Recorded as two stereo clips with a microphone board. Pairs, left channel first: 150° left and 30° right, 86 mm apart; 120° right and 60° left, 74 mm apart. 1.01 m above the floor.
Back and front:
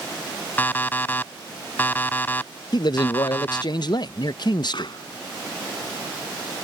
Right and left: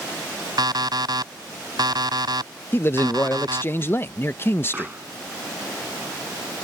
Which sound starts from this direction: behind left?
A pop, at 4.7 s.